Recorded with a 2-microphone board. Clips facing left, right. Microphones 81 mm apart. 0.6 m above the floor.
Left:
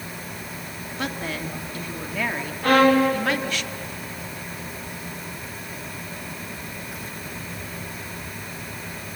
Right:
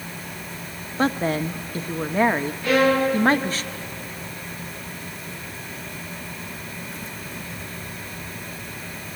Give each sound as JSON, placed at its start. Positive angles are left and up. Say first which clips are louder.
{"t": 1.0, "sound": "a woman speaking", "louder": "right 8 dB", "side_deg": -35, "distance_m": 1.2}
{"t": 2.6, "sound": "a violin", "louder": "left 3 dB", "side_deg": 55, "distance_m": 3.5}